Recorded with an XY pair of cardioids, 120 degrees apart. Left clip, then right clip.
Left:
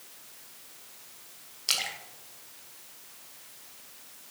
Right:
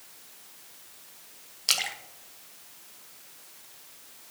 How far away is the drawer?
No drawer in this recording.